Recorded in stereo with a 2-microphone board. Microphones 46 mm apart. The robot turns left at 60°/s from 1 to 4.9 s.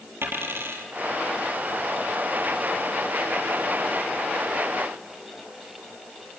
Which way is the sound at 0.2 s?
60° right (ahead or behind).